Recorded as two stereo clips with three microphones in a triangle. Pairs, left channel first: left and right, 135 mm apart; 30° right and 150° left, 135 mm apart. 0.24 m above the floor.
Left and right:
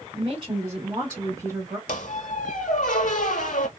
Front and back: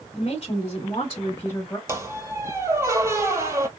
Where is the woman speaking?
50° right, 1.5 m; by 1.8 s 95° right, 1.1 m.